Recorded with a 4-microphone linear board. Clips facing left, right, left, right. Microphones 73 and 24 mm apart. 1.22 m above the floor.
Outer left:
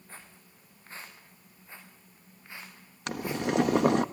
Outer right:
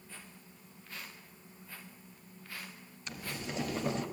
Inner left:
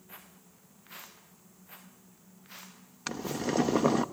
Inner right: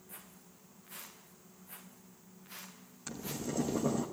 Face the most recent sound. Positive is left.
turn(degrees=70)  # may be behind; listen again after turning